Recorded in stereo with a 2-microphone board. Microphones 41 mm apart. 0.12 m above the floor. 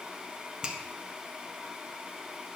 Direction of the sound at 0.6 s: 20° right (ahead or behind).